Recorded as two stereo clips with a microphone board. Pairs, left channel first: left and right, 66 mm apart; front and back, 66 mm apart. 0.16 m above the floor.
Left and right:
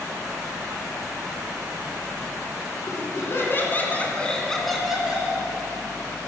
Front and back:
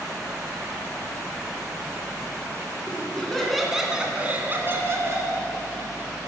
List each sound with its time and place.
2.9 s laughter: 70° left, 2.5 m; by 5.4 s 165° right, 2.5 m